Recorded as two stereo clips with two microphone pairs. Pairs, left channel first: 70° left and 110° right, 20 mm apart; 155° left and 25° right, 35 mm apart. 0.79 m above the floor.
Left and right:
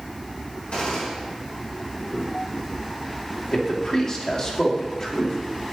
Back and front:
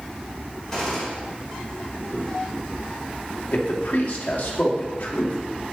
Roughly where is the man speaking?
Behind left.